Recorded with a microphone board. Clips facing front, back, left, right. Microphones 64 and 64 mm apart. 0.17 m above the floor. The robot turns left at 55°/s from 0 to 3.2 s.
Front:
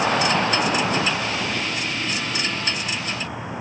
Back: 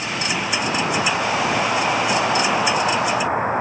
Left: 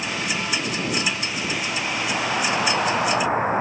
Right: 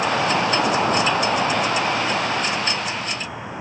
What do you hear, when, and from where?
0.0 s an insect: 45° right; by 3.6 s 135° left